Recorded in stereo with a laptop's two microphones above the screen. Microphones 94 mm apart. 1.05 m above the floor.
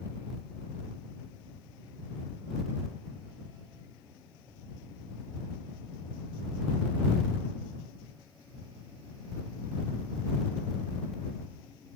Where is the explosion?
No explosion in this recording.